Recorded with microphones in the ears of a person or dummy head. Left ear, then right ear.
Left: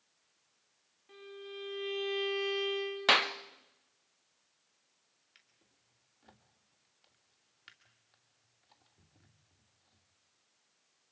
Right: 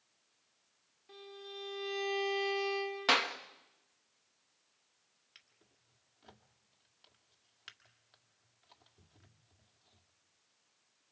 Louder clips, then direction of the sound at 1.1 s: Left 1 dB; 5° right (ahead or behind).